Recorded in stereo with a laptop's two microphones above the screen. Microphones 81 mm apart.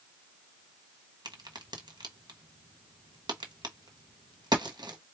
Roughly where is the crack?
Right.